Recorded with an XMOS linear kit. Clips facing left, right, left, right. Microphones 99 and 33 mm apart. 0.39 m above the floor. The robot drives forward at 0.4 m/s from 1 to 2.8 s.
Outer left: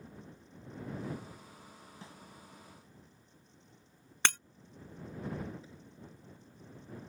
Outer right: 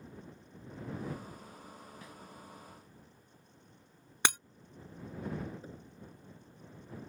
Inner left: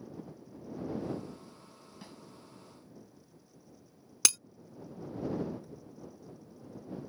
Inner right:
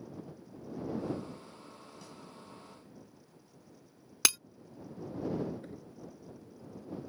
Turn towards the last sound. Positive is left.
turn(degrees=-50)  # may be behind; listen again after turning